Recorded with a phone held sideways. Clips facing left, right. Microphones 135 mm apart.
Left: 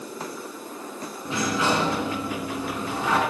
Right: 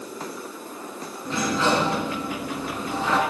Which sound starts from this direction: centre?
A sliding door, at 1.2 s.